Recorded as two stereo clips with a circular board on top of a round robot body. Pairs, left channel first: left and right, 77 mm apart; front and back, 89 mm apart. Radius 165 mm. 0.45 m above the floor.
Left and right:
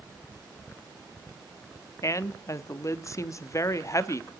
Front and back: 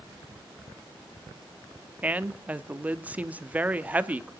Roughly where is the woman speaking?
Behind left.